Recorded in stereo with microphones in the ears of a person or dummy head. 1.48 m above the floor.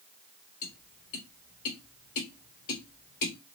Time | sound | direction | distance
0.6 | tapping | 50° left (ahead or behind) | 3 m